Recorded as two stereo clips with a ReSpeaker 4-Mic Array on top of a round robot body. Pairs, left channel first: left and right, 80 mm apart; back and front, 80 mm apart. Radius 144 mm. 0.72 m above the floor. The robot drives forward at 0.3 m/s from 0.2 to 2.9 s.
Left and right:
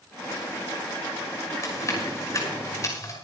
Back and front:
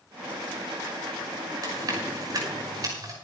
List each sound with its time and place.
1.6 s chewing: 40° left, 6 m